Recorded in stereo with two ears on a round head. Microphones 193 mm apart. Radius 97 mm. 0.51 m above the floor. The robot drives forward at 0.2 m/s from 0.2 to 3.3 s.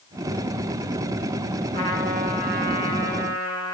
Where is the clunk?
I don't hear a clunk.